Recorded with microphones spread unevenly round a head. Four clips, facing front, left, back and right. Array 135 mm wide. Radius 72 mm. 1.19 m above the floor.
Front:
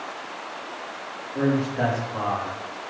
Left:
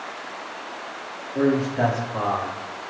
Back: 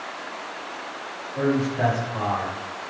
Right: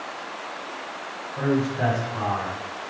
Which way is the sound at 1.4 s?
70° left.